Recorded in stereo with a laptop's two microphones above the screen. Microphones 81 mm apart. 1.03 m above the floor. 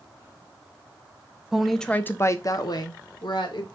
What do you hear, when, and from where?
1.5 s a woman speaking: 5° right (ahead or behind), 0.6 m; by 3.6 s 75° left (ahead or behind), 1.1 m